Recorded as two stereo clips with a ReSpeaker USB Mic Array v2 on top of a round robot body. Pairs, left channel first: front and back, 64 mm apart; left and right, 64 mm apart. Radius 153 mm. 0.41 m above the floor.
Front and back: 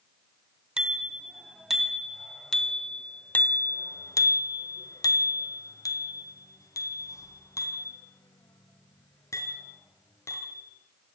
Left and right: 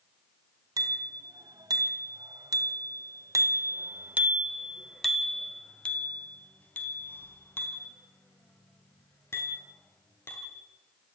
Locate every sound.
0.8 s a bicycle bell: 105° right, 3.5 m; by 10.6 s 45° left, 6.5 m